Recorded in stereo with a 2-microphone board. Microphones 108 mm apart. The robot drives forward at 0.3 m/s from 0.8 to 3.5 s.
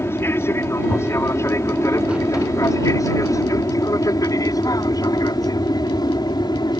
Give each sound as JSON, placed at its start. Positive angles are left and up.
{"t": 0.0, "sound": "an aircraft", "side_deg": 20}